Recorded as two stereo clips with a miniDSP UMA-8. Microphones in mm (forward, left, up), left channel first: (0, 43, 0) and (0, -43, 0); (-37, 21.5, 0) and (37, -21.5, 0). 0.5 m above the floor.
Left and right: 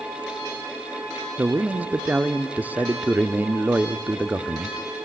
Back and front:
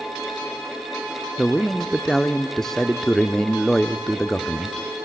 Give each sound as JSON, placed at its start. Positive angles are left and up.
{"t": 1.4, "sound": "a man speaking", "azimuth_deg": -135, "distance_m": 0.8}